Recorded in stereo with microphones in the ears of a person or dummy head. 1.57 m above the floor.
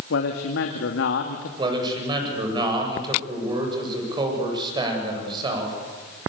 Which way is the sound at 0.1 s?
75° left (ahead or behind).